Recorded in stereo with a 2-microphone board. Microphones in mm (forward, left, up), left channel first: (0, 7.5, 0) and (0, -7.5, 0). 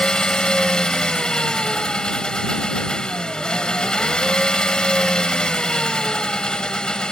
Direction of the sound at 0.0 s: 80° left.